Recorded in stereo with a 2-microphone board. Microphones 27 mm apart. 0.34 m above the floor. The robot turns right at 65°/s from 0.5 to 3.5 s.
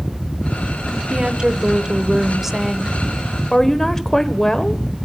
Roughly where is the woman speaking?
Right.